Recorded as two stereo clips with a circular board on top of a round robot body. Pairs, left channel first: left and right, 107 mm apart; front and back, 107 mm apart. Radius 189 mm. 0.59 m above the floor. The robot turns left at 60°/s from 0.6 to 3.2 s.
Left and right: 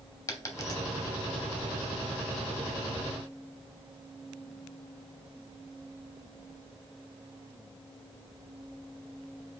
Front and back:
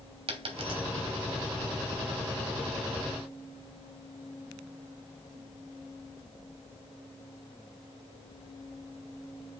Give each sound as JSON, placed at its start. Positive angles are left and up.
{"t": 0.3, "sound": "a dropped coin", "azimuth_deg": 150, "distance_m": 1.0}